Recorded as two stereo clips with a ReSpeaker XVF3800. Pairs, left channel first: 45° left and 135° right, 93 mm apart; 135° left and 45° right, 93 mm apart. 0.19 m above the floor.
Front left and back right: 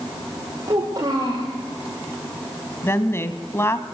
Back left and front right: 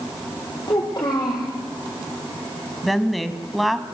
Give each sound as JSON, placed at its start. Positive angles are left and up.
{"t": 0.7, "sound": "a child speaking", "azimuth_deg": 180, "distance_m": 4.5}
{"t": 2.8, "sound": "a woman speaking", "azimuth_deg": 45, "distance_m": 1.0}